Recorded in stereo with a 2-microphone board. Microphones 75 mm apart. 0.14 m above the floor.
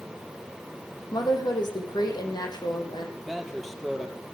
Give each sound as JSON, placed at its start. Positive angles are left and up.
{"t": 1.1, "sound": "a woman speaking", "side_deg": 70, "distance_m": 6.0}
{"t": 3.2, "sound": "a man speaking", "side_deg": 0, "distance_m": 4.0}